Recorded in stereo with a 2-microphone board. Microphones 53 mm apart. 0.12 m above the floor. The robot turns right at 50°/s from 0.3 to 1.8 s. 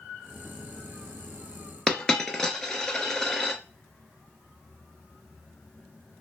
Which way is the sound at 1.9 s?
10° left (ahead or behind).